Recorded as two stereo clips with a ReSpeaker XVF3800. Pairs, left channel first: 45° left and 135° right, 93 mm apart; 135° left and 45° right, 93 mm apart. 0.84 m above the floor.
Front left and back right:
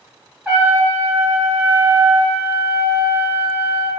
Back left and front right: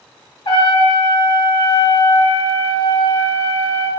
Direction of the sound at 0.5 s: 150° left.